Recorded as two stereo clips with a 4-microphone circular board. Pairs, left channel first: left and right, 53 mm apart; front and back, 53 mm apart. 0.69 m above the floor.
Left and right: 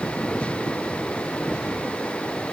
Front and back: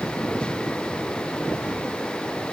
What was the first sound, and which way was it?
Only background noise.